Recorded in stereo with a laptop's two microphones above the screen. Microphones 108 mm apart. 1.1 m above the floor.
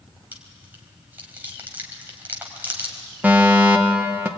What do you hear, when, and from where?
0.3 s chewing: 15° right (ahead or behind), 2.5 m
3.2 s a fire alarm: 15° right (ahead or behind), 1.4 m